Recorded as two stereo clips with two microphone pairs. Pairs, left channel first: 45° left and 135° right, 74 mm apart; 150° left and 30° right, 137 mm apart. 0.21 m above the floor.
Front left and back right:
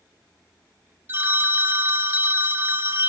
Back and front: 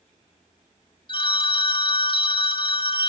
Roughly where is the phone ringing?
Behind.